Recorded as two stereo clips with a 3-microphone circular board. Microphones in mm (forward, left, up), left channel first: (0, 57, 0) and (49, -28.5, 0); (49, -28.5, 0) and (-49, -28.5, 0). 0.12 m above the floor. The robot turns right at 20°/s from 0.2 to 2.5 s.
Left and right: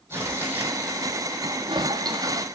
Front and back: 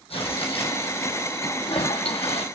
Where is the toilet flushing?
25° right, 0.7 m; by 2.5 s 5° right, 0.7 m.